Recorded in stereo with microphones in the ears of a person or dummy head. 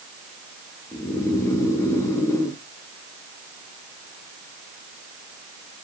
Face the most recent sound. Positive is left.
turn(degrees=15)  # may be behind; listen again after turning